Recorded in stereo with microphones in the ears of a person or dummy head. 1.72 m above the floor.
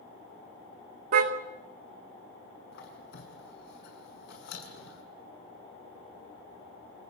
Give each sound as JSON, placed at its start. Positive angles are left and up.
{"t": 1.1, "sound": "a car horn", "side_deg": -50, "distance_m": 2.5}
{"t": 2.7, "sound": "a squeak", "side_deg": 65, "distance_m": 7.0}